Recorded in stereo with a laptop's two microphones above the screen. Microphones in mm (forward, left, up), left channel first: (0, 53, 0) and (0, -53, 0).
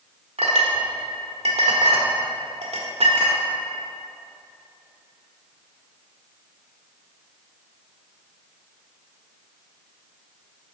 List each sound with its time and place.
0.4 s a clink: 80° right, 1.5 m